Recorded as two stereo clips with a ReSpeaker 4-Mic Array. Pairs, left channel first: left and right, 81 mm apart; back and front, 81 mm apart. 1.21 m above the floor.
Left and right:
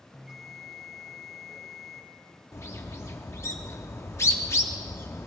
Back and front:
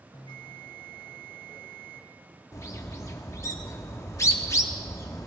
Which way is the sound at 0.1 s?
175° right.